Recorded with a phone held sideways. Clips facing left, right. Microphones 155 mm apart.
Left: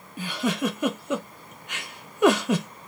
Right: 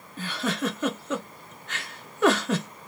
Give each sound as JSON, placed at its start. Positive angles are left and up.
{"t": 0.2, "sound": "a giggle", "side_deg": 15, "distance_m": 0.5}